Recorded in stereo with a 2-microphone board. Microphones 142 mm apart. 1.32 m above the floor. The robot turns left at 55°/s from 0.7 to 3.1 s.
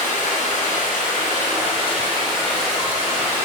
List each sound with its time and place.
0.0 s running water: 110° left, 0.8 m; by 3.5 s 20° right, 0.8 m